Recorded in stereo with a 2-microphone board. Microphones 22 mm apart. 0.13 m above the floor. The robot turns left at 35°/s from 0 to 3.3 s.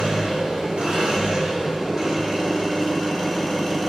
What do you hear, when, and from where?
0.0 s an engine running: 80° right, 3.5 m; by 3.9 s 165° left, 3.5 m